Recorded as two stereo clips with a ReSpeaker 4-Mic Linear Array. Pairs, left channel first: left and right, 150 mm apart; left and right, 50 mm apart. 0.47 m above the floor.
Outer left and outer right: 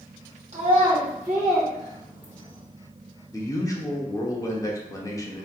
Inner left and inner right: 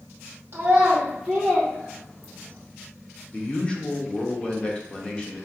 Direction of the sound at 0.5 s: 45° right (ahead or behind).